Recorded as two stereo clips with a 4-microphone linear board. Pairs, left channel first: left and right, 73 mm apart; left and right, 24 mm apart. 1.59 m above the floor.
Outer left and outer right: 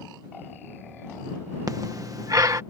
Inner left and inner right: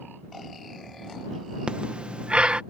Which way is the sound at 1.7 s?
50° right (ahead or behind).